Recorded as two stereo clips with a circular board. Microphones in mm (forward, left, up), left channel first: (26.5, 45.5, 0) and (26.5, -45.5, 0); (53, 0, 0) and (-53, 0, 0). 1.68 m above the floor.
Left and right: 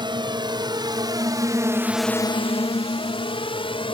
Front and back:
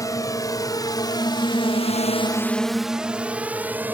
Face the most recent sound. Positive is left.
turn(degrees=105)